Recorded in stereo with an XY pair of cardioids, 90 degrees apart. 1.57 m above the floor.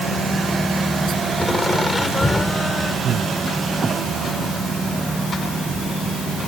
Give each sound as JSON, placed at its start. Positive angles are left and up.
{"t": 1.4, "sound": "laughter", "azimuth_deg": 25}
{"t": 3.0, "sound": "breathing", "azimuth_deg": -60}